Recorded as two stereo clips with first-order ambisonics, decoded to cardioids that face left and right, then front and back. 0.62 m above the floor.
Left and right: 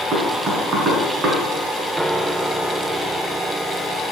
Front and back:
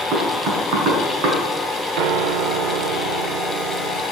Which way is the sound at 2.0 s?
175° right.